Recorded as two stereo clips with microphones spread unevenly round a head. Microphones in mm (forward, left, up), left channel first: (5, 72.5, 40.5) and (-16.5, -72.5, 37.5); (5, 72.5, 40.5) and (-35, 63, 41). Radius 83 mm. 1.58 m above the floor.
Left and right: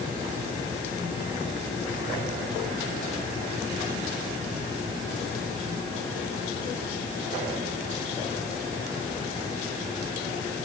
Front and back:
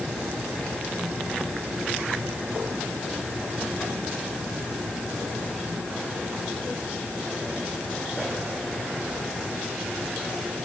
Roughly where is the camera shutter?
No camera shutter in this recording.